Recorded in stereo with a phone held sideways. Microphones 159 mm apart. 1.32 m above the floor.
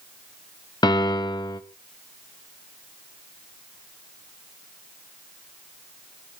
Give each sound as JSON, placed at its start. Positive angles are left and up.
{"t": 0.8, "sound": "a piano", "side_deg": 30, "distance_m": 0.8}